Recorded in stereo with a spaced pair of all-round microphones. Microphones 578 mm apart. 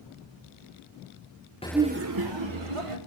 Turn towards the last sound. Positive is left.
turn(degrees=-65)  # may be behind; listen again after turning